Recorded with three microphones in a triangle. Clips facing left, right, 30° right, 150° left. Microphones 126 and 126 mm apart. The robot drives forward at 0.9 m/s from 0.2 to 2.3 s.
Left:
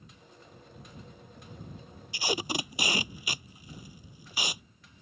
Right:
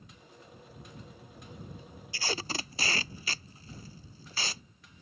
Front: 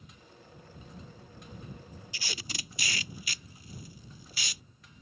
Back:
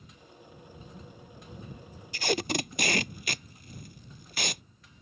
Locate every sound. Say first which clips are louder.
2.1 s tape being pulled: left 4 dB, back 16 dB; 160° left; by 4.6 s 165° left